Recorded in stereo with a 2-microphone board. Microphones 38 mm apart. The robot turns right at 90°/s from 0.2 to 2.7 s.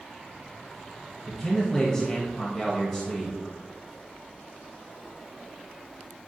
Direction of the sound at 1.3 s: 5° left (ahead or behind).